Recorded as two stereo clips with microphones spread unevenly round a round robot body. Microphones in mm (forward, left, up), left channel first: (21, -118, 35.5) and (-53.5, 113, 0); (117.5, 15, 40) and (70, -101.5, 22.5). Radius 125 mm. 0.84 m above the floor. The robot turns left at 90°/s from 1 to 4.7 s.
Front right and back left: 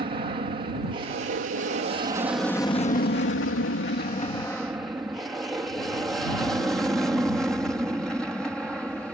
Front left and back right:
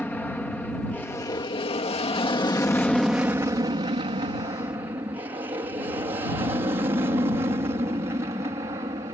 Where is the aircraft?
150° left; by 9.2 s 165° right.